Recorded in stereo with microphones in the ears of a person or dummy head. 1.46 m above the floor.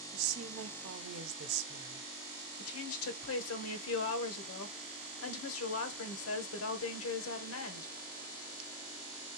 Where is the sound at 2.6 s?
80° left, 1.1 m.